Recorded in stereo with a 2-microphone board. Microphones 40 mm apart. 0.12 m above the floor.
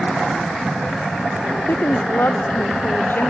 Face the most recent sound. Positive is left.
turn(degrees=65)  # may be behind; listen again after turning